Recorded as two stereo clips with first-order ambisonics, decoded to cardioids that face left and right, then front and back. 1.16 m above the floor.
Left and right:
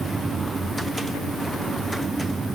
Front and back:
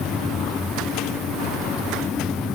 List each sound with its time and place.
Only background noise.